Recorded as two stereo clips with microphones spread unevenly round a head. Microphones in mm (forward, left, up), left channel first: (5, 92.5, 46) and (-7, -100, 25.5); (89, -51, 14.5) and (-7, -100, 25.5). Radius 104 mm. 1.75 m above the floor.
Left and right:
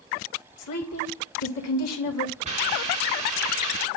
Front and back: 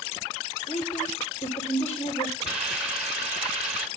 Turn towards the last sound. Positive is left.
turn(degrees=-150)